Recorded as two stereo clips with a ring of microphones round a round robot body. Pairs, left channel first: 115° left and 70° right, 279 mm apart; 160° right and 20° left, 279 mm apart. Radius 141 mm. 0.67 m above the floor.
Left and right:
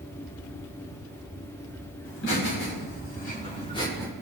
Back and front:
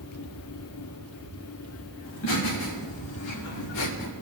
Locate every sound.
2.0 s laughter: 160° left, 4.5 m; by 4.1 s 160° right, 2 m